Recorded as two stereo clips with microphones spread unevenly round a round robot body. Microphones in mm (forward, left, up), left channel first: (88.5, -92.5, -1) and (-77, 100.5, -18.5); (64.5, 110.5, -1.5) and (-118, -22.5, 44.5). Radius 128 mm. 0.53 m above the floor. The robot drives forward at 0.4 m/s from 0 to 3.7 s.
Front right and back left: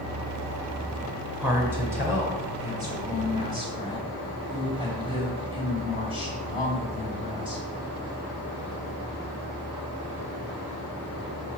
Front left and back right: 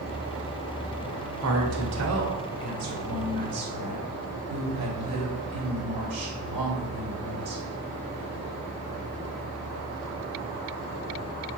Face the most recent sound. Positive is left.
turn(degrees=-160)